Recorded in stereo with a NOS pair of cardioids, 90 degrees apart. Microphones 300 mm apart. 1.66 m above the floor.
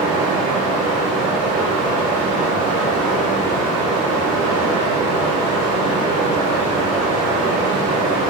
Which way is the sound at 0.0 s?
60° right.